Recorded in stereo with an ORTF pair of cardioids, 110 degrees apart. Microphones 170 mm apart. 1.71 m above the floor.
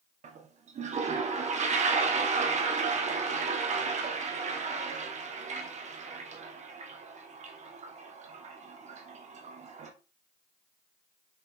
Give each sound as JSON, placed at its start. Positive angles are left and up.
{"t": 0.2, "sound": "a toilet flushing", "azimuth_deg": -45, "distance_m": 1.7}